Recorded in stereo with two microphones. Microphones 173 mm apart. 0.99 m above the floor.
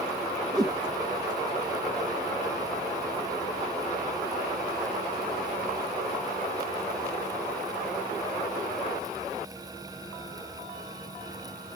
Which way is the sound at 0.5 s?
20° right (ahead or behind).